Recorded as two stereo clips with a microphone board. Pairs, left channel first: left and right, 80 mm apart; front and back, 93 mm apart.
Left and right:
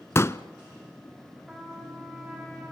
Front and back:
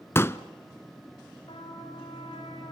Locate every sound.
0.1 s a pop: 50° left, 0.6 m
1.5 s a trumpet: 15° right, 5.5 m